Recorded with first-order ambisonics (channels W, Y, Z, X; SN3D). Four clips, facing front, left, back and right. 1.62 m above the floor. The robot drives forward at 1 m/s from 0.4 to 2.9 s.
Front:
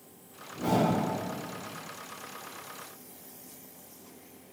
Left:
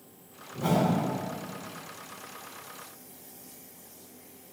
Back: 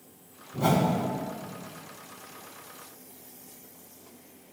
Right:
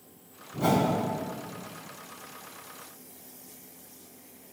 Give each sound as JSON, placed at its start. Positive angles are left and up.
{"t": 0.5, "sound": "a whoosh", "azimuth_deg": -140, "distance_m": 4.0}